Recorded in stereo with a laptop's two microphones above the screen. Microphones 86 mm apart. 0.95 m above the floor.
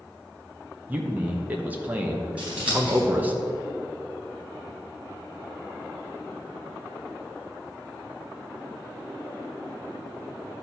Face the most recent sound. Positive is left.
turn(degrees=-15)  # may be behind; listen again after turning